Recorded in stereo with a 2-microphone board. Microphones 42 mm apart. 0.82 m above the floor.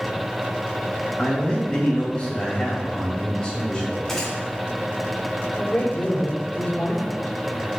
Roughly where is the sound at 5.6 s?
Left.